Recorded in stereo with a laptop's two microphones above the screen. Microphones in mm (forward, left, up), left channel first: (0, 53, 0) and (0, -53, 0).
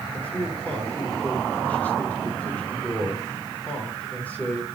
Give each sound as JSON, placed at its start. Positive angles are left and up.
{"t": 0.1, "sound": "a man speaking", "side_deg": 15, "distance_m": 3.0}